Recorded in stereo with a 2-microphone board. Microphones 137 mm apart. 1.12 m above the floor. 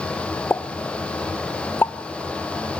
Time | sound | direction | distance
0.5 | a pop | 15° left (ahead or behind) | 0.7 m